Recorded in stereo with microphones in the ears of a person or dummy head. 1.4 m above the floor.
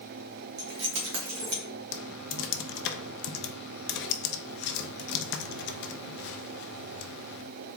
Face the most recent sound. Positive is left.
turn(degrees=55)  # may be behind; listen again after turning